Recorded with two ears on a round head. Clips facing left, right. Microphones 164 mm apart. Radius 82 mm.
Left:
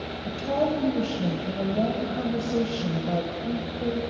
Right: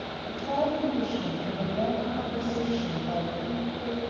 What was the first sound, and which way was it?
A woman speaking, 40° left (ahead or behind).